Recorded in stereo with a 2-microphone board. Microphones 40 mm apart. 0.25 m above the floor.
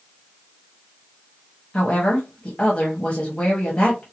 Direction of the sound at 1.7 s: 25° left (ahead or behind).